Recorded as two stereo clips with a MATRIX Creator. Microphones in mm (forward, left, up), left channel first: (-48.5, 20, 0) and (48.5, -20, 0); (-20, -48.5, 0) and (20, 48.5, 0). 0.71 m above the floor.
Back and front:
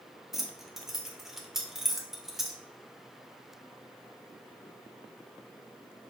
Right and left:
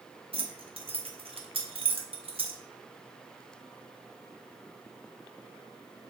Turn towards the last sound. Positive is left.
turn(degrees=65)